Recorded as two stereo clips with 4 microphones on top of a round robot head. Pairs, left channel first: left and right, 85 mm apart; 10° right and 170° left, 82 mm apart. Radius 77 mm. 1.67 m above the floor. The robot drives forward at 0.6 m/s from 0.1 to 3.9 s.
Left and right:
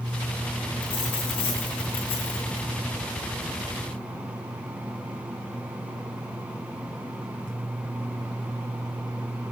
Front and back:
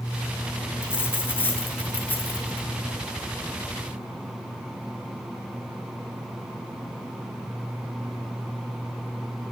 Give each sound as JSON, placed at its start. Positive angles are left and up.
{"t": 0.8, "sound": "a dropped coin", "azimuth_deg": 55, "distance_m": 7.5}